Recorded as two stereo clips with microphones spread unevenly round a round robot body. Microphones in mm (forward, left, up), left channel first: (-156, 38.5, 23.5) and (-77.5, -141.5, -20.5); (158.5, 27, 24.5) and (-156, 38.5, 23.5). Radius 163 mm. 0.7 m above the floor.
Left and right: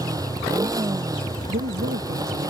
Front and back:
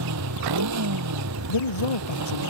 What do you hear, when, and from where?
0.0 s a motorcycle: 140° right
1.5 s a man speaking: 5° right